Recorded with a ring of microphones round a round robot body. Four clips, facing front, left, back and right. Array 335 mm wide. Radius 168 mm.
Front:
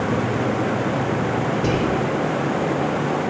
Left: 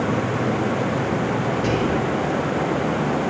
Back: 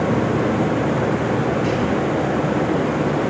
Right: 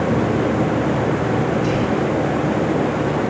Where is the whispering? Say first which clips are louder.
Right 2 dB, back 1 dB; 30° left, 2.0 m.